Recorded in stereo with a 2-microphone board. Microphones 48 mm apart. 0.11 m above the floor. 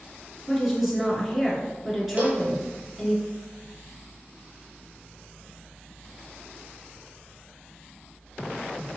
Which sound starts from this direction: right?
A cowbell, at 2.2 s.